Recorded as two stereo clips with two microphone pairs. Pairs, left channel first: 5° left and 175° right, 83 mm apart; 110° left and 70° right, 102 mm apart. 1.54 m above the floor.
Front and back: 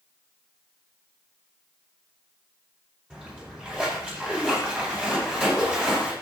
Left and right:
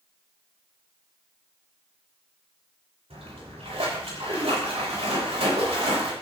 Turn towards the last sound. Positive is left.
turn(degrees=-95)